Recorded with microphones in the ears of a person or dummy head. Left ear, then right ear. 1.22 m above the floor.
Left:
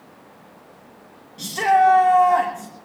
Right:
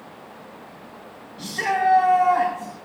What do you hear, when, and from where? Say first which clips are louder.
1.4 s a shout: left 6 dB; 45° left (ahead or behind), 1.5 m